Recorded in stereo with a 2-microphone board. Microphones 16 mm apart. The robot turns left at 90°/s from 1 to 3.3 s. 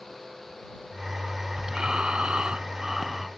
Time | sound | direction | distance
1.7 | breathing | 40° right | ?